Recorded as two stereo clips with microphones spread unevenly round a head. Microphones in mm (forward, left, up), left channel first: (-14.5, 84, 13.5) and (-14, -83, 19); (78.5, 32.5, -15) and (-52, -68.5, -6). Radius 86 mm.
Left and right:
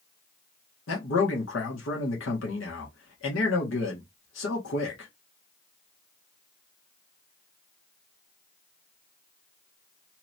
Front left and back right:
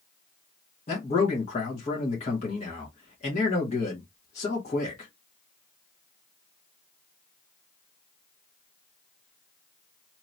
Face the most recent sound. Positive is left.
turn(degrees=90)